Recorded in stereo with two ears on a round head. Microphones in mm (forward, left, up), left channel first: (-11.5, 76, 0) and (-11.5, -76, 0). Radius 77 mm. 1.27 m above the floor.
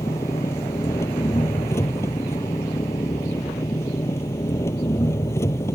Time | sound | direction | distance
0.0 | an engine running | 15° left (ahead or behind) | ?